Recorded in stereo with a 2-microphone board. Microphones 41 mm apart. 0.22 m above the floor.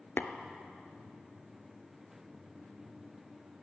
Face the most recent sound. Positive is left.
turn(degrees=65)  # may be behind; listen again after turning